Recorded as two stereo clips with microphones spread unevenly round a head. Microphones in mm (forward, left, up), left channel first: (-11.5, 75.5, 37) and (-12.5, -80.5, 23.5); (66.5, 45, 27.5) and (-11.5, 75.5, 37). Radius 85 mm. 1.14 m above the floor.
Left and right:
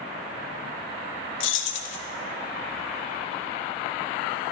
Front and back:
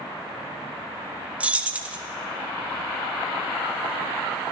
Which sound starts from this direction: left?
Keys jangling, at 1.4 s.